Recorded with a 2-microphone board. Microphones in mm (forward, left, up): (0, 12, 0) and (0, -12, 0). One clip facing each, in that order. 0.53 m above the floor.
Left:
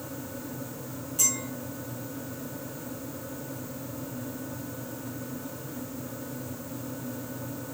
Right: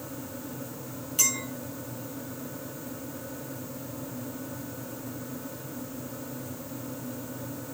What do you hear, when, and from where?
1.2 s a clink: 75° right (ahead or behind), 3.5 m